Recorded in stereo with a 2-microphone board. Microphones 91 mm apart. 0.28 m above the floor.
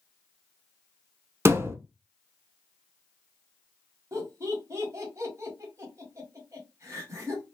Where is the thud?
30° right (ahead or behind), 0.7 m.